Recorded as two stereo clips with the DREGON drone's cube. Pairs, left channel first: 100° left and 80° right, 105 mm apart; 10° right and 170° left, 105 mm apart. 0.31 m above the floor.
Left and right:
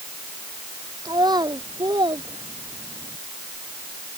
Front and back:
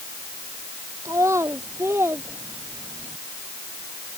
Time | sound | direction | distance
1.1 | a child speaking | 130° right | ?